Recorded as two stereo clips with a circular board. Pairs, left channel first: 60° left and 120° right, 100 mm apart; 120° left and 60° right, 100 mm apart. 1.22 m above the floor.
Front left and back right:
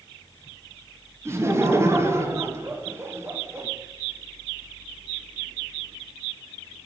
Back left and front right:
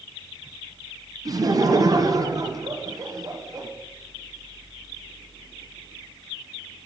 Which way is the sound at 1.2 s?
75° right.